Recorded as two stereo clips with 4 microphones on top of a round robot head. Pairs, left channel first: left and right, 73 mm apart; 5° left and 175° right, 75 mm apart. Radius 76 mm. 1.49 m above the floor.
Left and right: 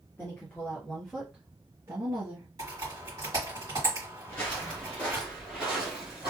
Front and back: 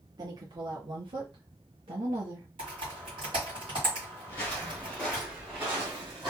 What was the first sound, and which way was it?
A woman speaking, 155° left.